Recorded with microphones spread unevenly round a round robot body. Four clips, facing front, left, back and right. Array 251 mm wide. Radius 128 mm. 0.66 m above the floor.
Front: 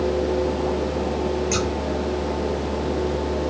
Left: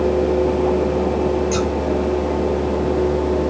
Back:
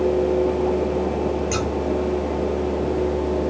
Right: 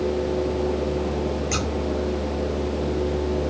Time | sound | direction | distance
1.5 | scissors | 110° right | 2.5 m